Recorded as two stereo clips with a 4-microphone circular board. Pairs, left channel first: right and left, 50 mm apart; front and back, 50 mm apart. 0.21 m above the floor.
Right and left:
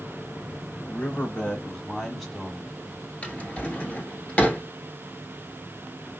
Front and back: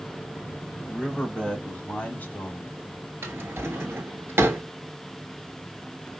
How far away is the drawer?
About 1.0 m.